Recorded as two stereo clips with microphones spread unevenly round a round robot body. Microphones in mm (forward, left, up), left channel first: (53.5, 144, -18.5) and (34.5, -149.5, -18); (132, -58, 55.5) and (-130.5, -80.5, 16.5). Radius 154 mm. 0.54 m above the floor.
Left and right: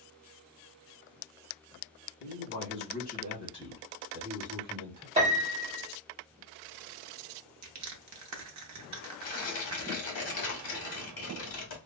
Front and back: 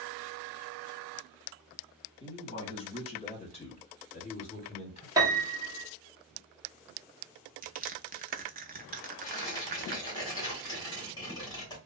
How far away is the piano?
About 0.9 m.